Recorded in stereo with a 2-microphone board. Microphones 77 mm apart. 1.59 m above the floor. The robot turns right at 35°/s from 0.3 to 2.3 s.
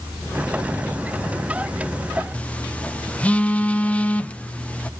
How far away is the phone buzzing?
About 0.7 m.